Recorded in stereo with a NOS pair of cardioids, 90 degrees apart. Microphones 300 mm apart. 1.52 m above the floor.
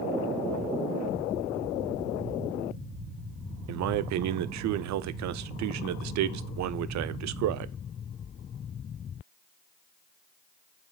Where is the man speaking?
70° right, 0.6 m.